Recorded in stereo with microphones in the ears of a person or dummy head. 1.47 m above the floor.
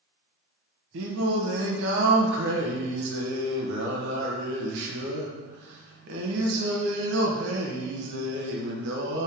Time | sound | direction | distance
0.9 | singing | 65° right (ahead or behind) | 1.0 m